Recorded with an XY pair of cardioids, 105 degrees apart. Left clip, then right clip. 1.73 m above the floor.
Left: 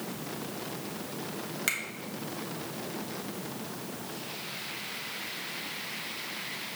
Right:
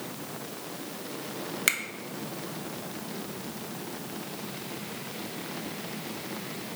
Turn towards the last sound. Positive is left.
turn(degrees=-35)